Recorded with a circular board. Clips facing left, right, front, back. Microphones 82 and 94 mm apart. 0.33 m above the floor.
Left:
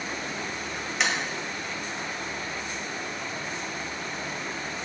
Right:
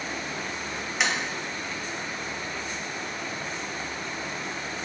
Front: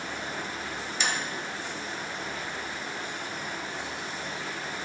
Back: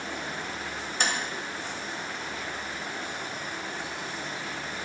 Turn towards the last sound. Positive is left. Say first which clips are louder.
# even, back 2 dB
turn(degrees=-175)